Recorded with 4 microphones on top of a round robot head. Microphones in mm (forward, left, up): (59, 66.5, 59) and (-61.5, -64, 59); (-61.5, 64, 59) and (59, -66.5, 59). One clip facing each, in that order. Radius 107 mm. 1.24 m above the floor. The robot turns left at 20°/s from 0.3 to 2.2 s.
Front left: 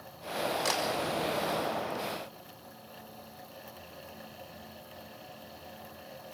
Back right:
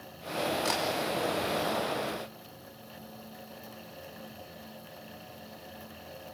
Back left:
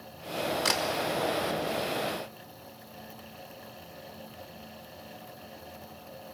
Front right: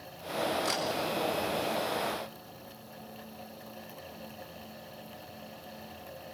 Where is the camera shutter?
115° left, 5 m; by 0.8 s 110° left, 5 m.